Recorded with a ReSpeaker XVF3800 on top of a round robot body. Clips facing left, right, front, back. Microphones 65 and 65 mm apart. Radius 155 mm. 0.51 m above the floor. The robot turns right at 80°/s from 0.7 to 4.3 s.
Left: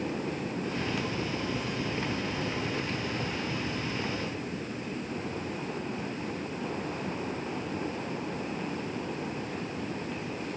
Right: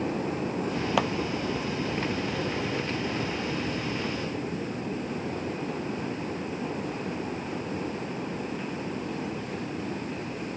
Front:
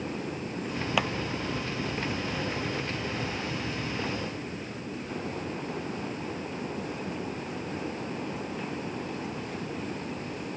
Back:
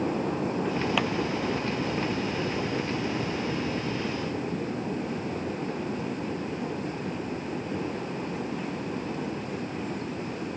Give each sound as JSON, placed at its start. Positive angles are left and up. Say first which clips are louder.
{"t": 1.0, "sound": "a clap", "louder": "right 8 dB, front 3 dB", "azimuth_deg": -85}